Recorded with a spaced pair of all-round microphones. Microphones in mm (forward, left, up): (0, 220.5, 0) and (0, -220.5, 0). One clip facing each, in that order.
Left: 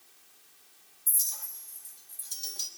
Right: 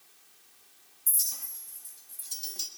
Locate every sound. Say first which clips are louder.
1.1 s a clink: right 1 dB; 45° right (ahead or behind), 1.0 m